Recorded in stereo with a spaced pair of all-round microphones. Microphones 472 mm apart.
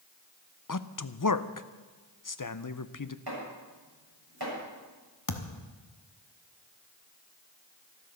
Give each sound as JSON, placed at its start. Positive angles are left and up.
{"t": 0.7, "sound": "a man speaking", "side_deg": 45, "distance_m": 0.7}
{"t": 3.3, "sound": "chopping", "side_deg": -50, "distance_m": 7.5}
{"t": 5.3, "sound": "a thud", "side_deg": 45, "distance_m": 1.0}